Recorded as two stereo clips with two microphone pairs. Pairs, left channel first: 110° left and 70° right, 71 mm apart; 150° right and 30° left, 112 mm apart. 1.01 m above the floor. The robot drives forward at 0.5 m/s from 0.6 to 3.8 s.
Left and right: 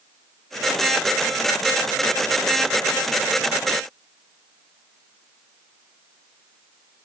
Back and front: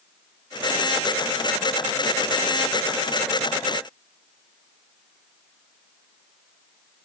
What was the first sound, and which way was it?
Only background noise.